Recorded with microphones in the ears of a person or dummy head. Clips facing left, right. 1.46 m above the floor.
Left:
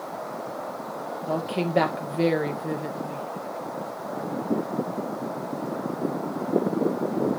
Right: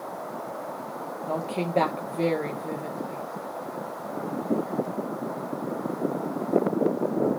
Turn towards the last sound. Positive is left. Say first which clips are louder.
# left 2 dB
turn(degrees=15)  # may be behind; listen again after turning